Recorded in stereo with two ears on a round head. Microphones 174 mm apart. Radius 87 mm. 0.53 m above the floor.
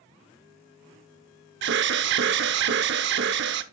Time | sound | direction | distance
1.6 | an alarm | 60° right (ahead or behind) | 0.8 m